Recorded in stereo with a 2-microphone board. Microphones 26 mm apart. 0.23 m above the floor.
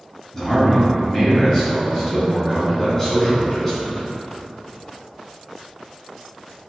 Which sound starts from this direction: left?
A man speaking, at 0.3 s.